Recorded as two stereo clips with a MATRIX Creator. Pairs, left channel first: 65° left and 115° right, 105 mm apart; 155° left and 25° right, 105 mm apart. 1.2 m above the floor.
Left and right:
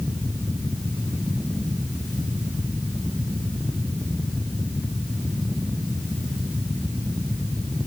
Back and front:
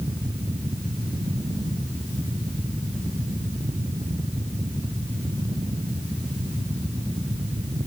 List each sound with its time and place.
Only background noise.